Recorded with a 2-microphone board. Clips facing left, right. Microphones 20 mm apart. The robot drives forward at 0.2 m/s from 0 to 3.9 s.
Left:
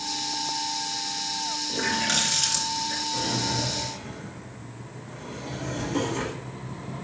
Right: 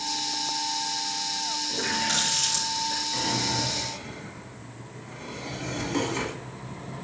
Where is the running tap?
35° left (ahead or behind), 3 m; by 3.0 s 30° left (ahead or behind), 3.5 m.